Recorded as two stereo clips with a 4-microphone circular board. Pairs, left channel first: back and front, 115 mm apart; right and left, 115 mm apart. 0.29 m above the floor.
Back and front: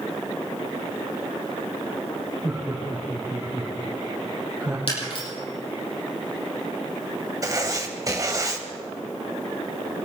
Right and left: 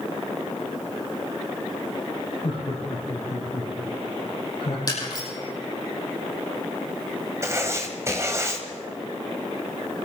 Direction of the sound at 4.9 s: 145° right.